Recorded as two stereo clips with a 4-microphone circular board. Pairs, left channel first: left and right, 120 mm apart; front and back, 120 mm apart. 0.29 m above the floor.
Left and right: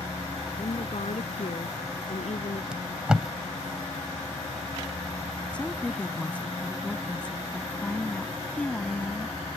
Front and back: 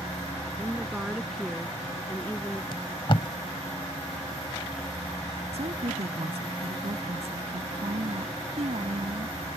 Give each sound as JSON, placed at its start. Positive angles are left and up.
{"t": 0.6, "sound": "a woman speaking", "azimuth_deg": 105}
{"t": 2.7, "sound": "tape being pulled", "azimuth_deg": -10}
{"t": 5.5, "sound": "a woman speaking", "azimuth_deg": 170}